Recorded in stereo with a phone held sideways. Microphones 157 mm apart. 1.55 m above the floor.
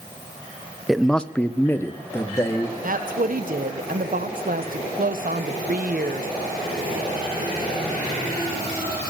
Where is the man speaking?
Centre (ahead or behind), 0.6 m; by 2.7 s 20° left (ahead or behind), 1.7 m.